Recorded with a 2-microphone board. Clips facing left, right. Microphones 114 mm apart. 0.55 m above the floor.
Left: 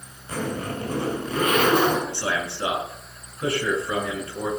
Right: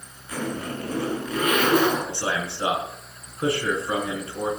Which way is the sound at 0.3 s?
30° left (ahead or behind).